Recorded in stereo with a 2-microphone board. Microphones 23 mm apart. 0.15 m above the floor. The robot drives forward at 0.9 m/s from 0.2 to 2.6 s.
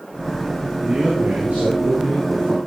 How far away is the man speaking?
About 9.5 m.